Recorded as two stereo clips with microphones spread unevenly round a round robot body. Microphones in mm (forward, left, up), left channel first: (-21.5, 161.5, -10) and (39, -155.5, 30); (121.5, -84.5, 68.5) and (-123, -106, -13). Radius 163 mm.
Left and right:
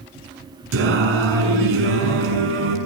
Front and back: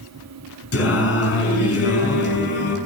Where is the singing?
25° right, 7 m.